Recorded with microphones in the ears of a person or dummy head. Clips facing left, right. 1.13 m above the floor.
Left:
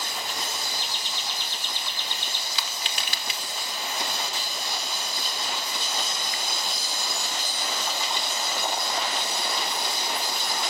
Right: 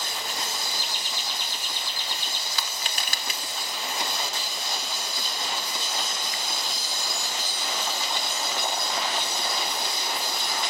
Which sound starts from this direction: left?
Laughter, at 0.8 s.